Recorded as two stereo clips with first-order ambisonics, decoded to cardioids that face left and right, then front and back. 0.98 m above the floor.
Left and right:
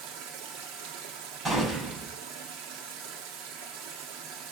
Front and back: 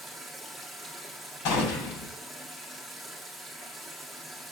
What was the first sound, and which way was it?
Running water, 90° right.